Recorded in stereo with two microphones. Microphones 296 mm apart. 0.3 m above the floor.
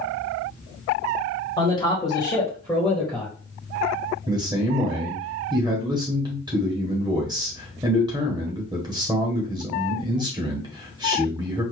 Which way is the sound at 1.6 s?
15° left (ahead or behind).